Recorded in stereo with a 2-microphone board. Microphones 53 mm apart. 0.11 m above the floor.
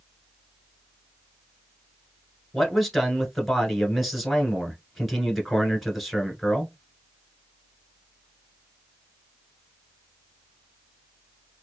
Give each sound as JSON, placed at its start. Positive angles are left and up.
{"t": 2.5, "sound": "a man speaking", "side_deg": 0, "distance_m": 1.1}